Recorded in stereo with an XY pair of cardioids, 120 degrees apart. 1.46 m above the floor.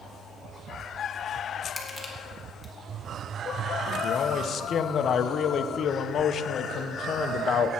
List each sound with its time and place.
1.8 s crushing: 5° right, 2 m
4.0 s a man speaking: 50° left, 0.8 m